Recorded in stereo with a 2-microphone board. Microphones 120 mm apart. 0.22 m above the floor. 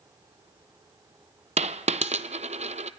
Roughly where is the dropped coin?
Right.